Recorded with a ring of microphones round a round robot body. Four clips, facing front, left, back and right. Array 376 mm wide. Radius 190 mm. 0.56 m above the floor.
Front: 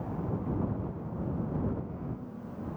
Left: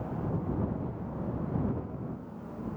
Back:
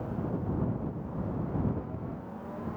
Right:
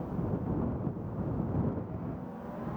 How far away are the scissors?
No scissors in this recording.